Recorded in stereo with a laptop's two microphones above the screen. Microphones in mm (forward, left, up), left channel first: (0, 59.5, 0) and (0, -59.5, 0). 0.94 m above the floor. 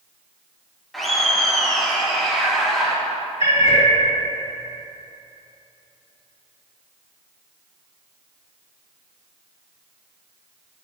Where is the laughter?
Centre (ahead or behind), 1.5 m.